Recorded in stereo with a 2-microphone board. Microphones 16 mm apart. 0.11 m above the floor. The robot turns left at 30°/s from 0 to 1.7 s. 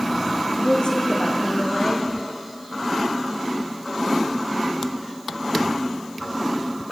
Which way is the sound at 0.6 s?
85° left.